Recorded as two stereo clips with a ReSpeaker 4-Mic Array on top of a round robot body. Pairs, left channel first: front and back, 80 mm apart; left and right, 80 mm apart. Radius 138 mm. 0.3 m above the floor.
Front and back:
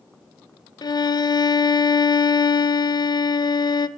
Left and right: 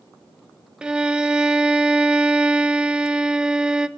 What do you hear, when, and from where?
0.8 s a violin: 10° right, 0.9 m